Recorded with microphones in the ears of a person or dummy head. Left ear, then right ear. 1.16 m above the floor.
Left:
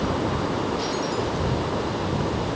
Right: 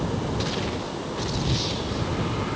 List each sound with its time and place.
Only background noise.